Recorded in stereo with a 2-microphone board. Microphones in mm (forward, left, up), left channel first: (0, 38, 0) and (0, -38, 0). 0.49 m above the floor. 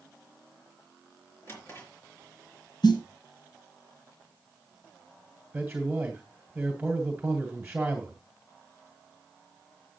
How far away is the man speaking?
About 2 m.